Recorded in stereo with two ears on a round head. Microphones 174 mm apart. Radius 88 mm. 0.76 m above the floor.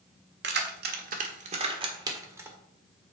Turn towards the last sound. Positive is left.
turn(degrees=-10)  # may be behind; listen again after turning